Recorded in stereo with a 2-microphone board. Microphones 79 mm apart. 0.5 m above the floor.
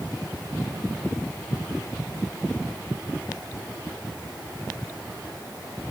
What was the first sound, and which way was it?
Only background noise.